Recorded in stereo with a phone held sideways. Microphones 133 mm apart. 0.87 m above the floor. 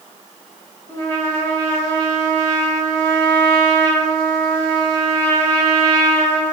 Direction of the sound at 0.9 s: 20° left (ahead or behind).